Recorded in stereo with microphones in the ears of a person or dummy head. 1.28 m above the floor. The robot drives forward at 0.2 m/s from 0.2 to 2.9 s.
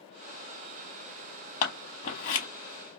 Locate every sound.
1.6 s scissors: 35° left (ahead or behind), 1.0 m; by 2.5 s 45° left (ahead or behind), 0.9 m